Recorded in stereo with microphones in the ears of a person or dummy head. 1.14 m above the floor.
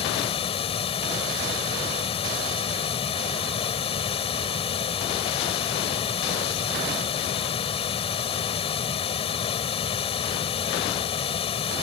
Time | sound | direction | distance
0.0 | running water | 30° left (ahead or behind) | ?